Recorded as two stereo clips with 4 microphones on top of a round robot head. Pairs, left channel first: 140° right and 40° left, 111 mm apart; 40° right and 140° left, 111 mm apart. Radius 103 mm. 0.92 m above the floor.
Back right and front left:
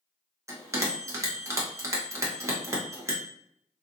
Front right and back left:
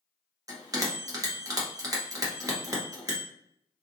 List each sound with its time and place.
0.5 s a bell: 95° left, 1.0 m